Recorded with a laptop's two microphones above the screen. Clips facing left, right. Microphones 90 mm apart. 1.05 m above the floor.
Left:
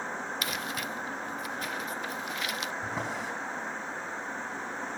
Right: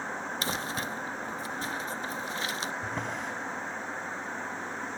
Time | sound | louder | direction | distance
0.4 | crumpling | right 1 dB | 30° right (ahead or behind) | 0.5 m
2.8 | a drawer | even | 5° left (ahead or behind) | 4 m